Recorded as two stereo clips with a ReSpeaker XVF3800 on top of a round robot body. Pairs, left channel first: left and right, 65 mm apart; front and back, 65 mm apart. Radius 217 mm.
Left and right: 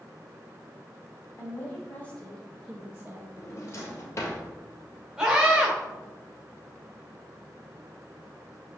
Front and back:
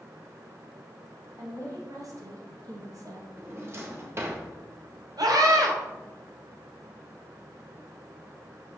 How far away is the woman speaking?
About 3 m.